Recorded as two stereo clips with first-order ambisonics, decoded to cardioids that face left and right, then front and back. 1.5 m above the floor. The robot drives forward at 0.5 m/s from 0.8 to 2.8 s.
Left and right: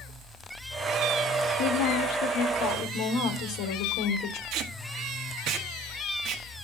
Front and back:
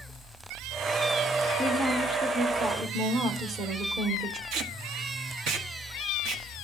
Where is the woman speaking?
95° left, 1.3 m; by 4.4 s 120° left, 1.4 m.